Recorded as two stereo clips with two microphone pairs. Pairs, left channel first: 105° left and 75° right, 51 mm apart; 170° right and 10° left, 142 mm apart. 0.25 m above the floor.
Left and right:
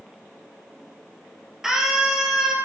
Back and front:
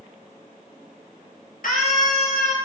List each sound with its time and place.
1.6 s a scream: 160° right, 5 m